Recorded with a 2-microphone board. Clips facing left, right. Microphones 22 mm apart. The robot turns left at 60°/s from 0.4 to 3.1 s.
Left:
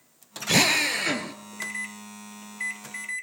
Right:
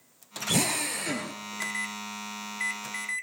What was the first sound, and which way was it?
A drill, 85° left.